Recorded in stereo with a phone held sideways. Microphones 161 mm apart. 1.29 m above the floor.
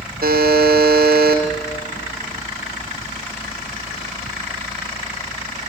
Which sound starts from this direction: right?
A buzzer, at 0.2 s.